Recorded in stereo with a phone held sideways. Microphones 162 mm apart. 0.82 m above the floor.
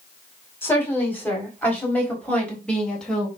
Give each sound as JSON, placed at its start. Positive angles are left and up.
{"t": 0.6, "sound": "a woman speaking", "side_deg": 15, "distance_m": 5.0}